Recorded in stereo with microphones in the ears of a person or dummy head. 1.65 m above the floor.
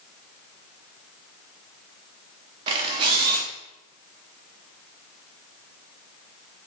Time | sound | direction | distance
2.7 | a camera shutter | 25° right (ahead or behind) | 0.6 m